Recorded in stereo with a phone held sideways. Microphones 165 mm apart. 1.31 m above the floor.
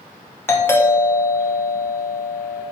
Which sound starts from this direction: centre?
A doorbell, at 0.5 s.